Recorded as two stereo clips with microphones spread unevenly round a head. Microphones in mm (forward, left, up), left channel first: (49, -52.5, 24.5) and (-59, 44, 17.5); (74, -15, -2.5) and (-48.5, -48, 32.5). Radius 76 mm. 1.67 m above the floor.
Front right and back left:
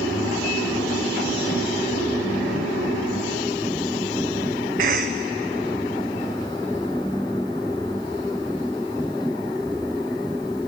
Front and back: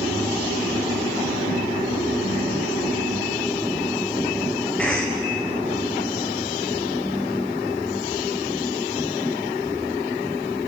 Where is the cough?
100° left, 0.9 m.